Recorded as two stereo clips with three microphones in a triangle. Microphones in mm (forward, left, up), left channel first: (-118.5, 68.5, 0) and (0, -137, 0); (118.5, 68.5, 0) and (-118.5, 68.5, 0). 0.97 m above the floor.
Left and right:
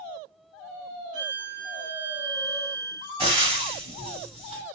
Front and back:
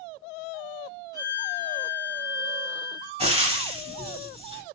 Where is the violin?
75° left, 1.6 m.